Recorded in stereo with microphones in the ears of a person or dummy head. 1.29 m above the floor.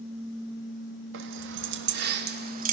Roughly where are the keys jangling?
Right.